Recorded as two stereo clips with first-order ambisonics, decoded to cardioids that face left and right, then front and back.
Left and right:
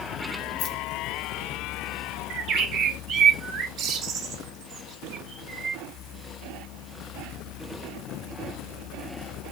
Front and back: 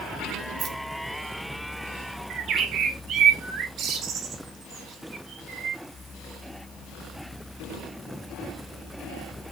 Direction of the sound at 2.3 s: 130° right.